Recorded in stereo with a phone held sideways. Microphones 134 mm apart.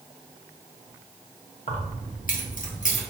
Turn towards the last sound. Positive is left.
turn(degrees=60)  # may be behind; listen again after turning